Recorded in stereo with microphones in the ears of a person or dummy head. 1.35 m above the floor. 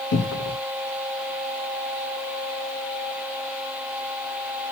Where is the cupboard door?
80° left, 1.2 m.